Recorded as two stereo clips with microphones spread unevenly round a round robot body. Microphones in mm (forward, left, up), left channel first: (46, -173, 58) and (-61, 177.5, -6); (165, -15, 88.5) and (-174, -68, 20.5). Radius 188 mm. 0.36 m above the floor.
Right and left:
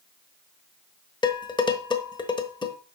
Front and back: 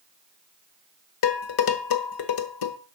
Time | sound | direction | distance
1.2 | dishes clattering | 10° left | 1.2 m